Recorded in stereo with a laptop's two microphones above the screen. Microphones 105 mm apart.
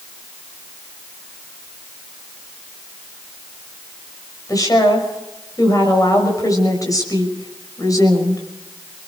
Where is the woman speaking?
35° left (ahead or behind), 6 m.